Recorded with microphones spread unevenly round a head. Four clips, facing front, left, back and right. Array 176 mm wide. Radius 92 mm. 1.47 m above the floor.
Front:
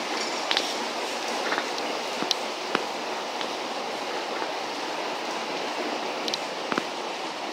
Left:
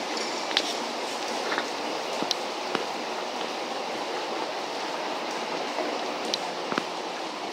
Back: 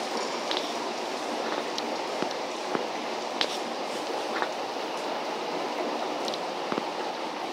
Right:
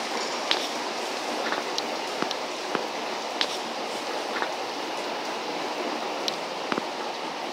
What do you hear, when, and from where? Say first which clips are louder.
0.2 s dishes clattering: right 1 dB, even; 145° left, 5 m